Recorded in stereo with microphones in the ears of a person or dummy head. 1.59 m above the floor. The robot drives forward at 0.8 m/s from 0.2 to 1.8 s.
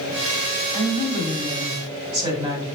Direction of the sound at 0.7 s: 10° right (ahead or behind).